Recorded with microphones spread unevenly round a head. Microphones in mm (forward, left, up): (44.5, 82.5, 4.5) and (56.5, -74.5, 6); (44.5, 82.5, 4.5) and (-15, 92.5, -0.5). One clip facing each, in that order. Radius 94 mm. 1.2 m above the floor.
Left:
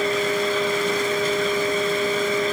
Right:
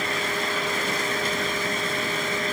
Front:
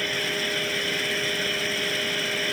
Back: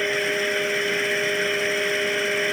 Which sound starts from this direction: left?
A fan, at 0.0 s.